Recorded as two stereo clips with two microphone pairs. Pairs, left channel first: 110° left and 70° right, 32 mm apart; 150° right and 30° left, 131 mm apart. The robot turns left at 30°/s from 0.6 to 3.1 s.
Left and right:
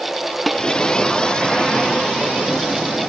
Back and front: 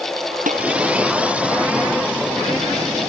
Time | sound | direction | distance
0.5 | dishes clattering | 25° left | ?